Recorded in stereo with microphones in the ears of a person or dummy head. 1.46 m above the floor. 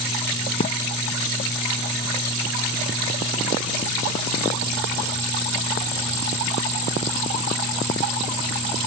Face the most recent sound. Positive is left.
turn(degrees=45)  # may be behind; listen again after turning